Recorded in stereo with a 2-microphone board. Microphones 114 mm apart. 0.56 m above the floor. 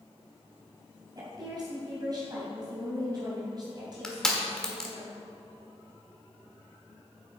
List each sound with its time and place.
1.1 s a woman speaking: 40° right (ahead or behind), 3.5 m
4.0 s crushing: 5° left (ahead or behind), 1.5 m